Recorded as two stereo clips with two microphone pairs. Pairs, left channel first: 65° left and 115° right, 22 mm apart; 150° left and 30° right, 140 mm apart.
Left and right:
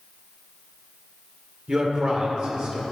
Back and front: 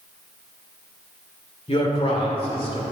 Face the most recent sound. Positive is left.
turn(degrees=-165)